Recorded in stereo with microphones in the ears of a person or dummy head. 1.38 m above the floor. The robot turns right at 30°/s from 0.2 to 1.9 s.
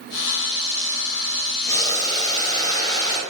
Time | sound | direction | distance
1.7 | boiling | 20° left (ahead or behind) | 1.2 m